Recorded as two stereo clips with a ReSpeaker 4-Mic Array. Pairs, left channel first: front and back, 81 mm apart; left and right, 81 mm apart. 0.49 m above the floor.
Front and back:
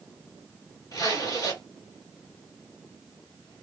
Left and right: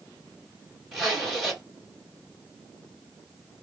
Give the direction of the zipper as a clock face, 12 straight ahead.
12 o'clock.